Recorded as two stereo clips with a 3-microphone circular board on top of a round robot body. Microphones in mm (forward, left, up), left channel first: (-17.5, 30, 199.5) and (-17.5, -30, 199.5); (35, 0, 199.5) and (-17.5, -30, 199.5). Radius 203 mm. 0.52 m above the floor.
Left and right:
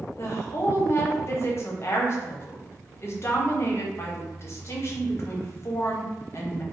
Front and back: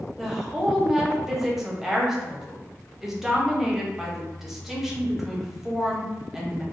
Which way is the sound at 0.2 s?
125° left.